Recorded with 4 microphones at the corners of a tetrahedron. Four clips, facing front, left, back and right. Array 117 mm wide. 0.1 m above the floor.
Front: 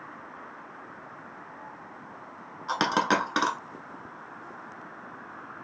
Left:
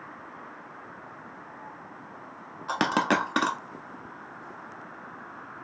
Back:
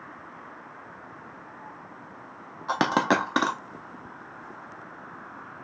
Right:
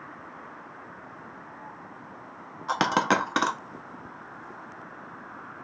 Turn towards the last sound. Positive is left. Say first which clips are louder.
# right 1 dB, back 2 dB
turn(degrees=150)